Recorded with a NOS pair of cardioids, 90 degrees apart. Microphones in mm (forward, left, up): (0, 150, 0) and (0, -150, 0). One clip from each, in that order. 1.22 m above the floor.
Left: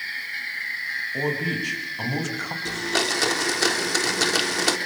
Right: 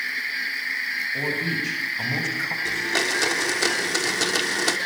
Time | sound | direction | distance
1.1 | a man speaking | 25° left | 7.5 m
2.6 | a blender | 15° left | 3.5 m